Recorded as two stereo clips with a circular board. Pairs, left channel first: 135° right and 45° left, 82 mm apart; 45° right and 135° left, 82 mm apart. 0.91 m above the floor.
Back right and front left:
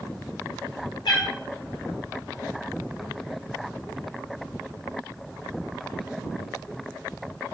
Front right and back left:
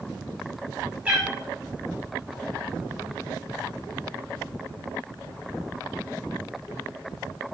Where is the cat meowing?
150° right, 0.8 m.